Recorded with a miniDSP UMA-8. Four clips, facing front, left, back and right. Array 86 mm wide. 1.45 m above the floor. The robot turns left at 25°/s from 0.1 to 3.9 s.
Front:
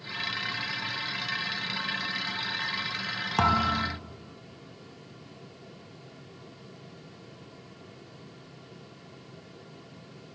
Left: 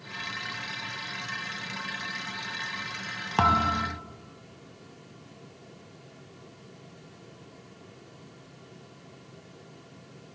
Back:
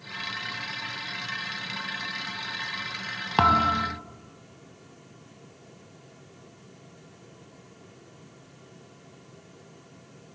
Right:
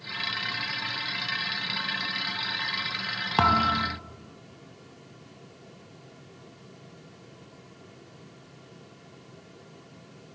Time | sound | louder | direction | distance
3.4 | a thud | right 1 dB, back 4 dB | 155° right | 0.7 m